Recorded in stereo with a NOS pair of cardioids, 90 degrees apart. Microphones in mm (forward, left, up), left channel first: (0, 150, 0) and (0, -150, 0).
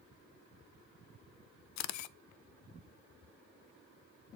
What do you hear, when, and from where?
1.8 s a camera shutter: 65° left, 0.5 m